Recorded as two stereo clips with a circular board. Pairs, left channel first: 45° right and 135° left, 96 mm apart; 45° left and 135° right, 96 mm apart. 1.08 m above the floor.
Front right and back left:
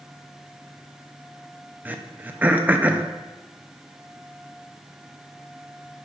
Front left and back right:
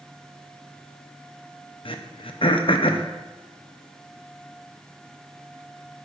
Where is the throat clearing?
65° left, 0.5 m.